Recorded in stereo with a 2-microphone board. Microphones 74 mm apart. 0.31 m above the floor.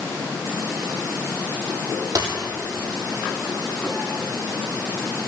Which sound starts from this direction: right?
A dropped coin, at 2.1 s.